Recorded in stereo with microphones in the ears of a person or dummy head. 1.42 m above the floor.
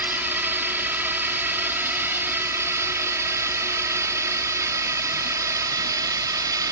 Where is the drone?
10° right (ahead or behind); by 6.7 s 20° right (ahead or behind).